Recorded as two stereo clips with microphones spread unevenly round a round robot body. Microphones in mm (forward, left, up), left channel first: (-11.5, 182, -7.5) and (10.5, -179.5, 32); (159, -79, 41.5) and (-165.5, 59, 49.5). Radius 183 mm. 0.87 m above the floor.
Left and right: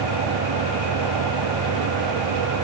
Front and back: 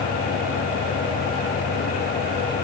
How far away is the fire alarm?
I don't hear a fire alarm.